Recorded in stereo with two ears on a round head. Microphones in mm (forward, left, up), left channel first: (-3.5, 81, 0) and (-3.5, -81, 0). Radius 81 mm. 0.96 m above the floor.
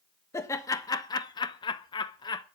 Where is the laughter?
15° left (ahead or behind), 1.2 m; by 2.5 s 20° left (ahead or behind), 0.9 m.